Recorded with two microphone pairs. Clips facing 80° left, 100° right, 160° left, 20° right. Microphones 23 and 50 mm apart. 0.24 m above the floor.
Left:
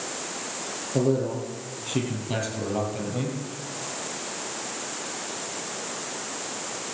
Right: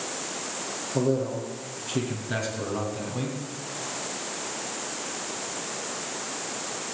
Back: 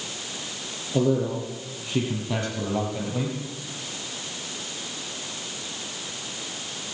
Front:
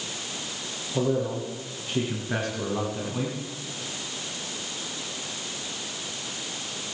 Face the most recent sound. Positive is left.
turn(degrees=135)